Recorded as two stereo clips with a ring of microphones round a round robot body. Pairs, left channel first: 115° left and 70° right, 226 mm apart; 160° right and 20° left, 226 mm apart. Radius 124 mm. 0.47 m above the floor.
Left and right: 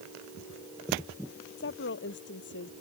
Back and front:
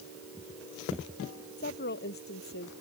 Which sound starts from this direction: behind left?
A woman speaking, at 1.6 s.